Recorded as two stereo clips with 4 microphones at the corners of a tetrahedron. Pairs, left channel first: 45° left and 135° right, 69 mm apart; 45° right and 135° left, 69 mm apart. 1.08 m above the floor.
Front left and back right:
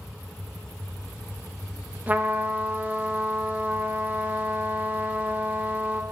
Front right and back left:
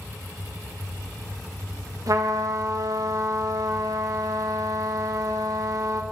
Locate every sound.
2.1 s a trumpet: 160° left, 1.4 m